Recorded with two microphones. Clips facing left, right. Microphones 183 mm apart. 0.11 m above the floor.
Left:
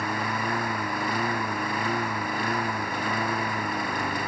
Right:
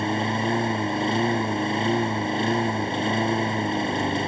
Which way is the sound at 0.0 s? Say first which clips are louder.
Right 5 dB; 25° right (ahead or behind).